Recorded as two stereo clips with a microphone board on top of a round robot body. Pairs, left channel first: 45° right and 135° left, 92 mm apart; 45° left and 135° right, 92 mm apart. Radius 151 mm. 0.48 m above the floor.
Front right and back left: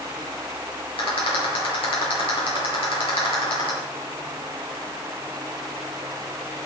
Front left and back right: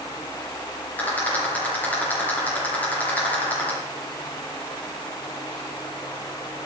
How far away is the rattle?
About 6 m.